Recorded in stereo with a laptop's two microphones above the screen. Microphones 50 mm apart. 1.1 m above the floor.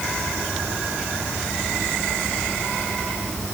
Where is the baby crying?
No baby crying in this recording.